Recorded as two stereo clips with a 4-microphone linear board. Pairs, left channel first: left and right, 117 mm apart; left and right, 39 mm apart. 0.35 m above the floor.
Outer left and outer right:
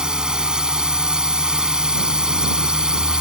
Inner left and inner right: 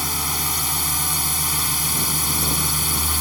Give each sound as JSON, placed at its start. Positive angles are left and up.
{"t": 0.0, "sound": "a drone", "side_deg": -5}